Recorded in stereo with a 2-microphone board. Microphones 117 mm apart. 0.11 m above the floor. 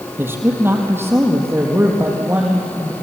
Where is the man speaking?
20° right (ahead or behind), 3 m.